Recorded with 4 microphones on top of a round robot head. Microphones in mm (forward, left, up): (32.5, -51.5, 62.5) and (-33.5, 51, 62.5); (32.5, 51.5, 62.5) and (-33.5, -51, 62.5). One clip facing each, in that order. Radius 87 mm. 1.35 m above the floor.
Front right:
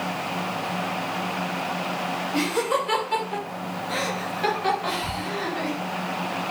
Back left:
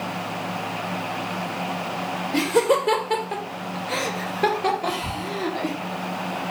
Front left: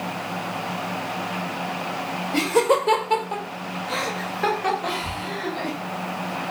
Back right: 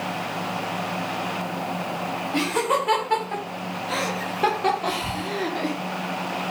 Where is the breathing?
165° right, 1.2 m.